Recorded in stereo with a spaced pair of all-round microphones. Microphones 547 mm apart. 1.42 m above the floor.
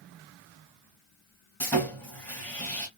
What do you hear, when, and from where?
1.6 s sawing: 5° left (ahead or behind), 1.5 m